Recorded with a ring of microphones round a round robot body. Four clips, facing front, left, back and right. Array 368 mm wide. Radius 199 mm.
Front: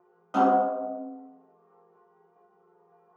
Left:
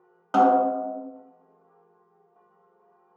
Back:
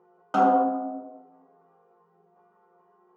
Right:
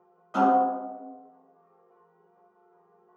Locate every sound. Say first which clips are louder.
0.3 s a snare drum: left 3 dB, back 2 dB; 120° left, 0.6 m